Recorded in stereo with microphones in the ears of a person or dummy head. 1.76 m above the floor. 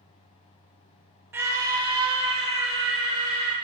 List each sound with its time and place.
1.3 s a scream: 10° right (ahead or behind), 1.2 m; by 3.5 s 35° right (ahead or behind), 3.5 m